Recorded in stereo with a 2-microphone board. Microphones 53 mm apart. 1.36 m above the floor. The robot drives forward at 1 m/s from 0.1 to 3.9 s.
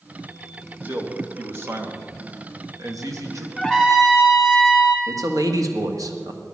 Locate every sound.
0.8 s a man speaking: 35° right (ahead or behind), 2.5 m; by 3.5 s 60° right (ahead or behind), 1.5 m
3.6 s a trumpet: centre (ahead or behind), 3 m
5.1 s a man speaking: 85° right, 1.9 m